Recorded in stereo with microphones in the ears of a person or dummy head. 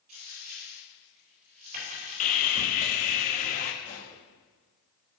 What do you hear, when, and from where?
0.1 s a dropped coin: 50° right (ahead or behind), 3.5 m
2.2 s sawing: 40° left (ahead or behind), 0.6 m
3.8 s a pop: 65° left (ahead or behind), 2.5 m